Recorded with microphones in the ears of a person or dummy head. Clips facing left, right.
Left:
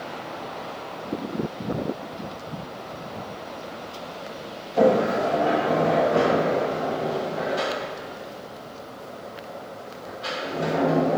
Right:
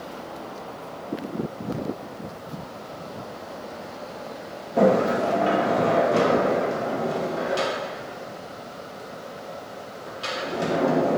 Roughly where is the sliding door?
Right.